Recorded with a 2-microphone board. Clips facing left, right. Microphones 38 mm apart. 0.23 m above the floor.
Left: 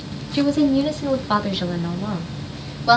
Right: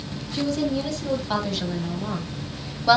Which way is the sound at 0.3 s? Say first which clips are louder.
Left 7 dB; 35° left (ahead or behind).